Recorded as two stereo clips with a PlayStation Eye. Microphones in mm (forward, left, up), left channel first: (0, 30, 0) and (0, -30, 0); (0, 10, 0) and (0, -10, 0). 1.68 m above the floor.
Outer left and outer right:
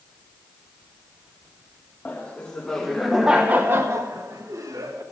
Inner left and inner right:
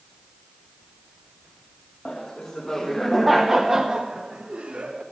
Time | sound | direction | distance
2.0 | laughter | 25° left (ahead or behind) | 1.9 m